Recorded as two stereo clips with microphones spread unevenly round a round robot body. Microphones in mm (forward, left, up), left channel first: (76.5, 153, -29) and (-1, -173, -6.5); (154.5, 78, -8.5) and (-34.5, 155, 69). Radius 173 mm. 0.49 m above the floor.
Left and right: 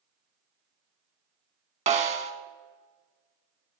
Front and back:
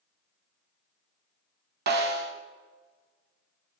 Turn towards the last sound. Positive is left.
turn(degrees=-170)